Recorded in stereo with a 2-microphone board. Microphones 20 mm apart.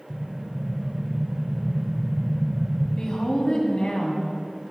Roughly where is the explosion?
Right.